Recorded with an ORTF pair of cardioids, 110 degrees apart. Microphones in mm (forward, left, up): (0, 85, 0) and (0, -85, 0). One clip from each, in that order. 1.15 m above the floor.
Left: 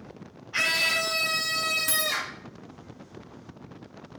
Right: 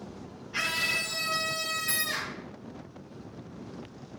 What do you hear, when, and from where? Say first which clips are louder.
0.5 s a scream: left 4 dB; 25° left, 0.9 m; by 2.4 s 65° left, 1.6 m
1.9 s a dropped coin: left 3 dB; 70° left, 3 m